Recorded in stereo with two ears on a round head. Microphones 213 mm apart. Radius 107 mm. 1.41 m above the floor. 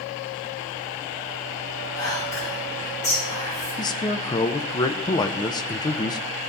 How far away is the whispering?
About 5 m.